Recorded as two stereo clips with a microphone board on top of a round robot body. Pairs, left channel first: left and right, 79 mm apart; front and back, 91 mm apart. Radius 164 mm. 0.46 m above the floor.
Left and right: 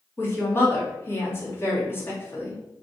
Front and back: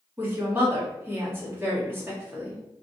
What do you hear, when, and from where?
0.2 s a woman speaking: 130° left, 1.6 m